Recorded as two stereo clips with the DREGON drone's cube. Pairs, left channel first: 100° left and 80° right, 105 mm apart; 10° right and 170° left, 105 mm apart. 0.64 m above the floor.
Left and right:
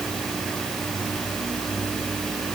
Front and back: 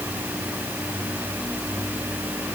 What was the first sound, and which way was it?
Only background noise.